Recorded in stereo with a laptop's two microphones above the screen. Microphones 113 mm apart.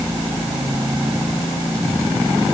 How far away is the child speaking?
No child speaking in this recording.